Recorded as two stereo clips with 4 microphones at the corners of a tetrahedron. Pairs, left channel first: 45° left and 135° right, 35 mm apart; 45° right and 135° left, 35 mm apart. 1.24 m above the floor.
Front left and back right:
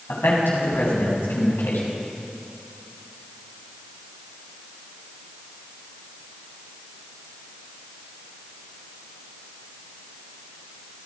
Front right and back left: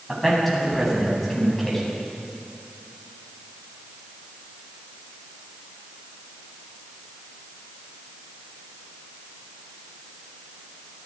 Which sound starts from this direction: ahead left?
A man speaking, at 0.1 s.